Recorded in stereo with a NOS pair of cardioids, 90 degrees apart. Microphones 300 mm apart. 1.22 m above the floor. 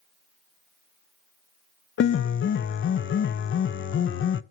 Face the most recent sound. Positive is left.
turn(degrees=40)